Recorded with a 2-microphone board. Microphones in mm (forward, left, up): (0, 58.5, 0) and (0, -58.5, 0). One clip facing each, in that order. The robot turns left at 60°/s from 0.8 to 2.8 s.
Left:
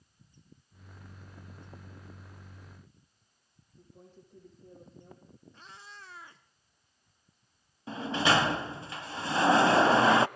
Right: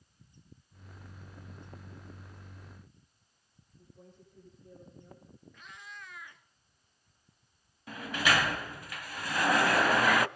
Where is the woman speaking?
75° left (ahead or behind), 9.5 m.